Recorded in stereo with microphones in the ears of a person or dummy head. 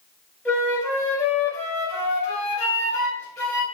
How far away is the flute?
About 2 m.